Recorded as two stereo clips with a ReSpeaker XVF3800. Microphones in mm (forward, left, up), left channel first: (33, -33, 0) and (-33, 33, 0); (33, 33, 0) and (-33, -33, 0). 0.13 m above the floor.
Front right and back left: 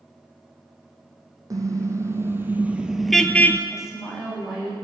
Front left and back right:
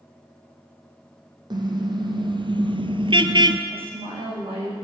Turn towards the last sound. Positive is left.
turn(degrees=-140)